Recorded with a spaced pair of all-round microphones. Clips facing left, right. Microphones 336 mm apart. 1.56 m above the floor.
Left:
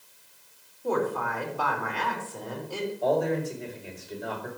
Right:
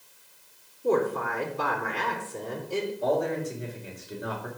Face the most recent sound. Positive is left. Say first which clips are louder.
# left 4 dB
turn(degrees=-10)  # may be behind; listen again after turning